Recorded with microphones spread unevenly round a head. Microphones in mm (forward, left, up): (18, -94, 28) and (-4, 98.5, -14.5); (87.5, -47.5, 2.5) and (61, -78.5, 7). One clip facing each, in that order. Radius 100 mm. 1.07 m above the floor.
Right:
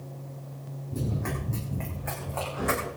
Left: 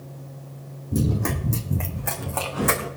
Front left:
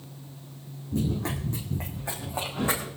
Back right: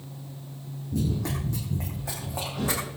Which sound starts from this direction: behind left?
Running footsteps, at 0.9 s.